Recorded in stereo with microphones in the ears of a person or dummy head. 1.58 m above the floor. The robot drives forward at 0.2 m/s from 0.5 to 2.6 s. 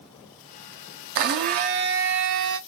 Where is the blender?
50° right (ahead or behind), 0.7 m.